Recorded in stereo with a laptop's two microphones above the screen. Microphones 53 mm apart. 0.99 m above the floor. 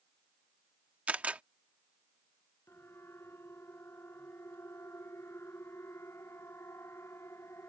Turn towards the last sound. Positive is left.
turn(degrees=55)  # may be behind; listen again after turning